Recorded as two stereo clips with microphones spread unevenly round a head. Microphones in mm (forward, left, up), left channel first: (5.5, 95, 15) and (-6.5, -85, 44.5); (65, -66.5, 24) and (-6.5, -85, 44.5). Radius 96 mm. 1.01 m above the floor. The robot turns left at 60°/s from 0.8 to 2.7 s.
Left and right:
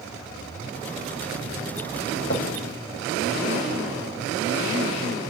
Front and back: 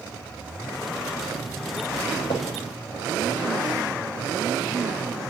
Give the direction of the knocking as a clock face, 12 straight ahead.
10 o'clock.